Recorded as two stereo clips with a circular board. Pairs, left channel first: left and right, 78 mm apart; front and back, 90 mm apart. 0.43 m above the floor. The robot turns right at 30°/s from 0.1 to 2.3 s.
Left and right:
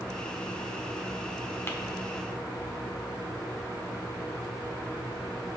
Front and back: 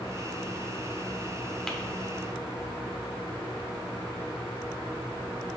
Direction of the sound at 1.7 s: 80° left.